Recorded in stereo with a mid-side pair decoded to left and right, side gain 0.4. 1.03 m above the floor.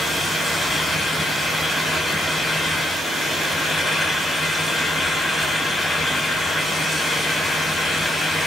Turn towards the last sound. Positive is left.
turn(degrees=25)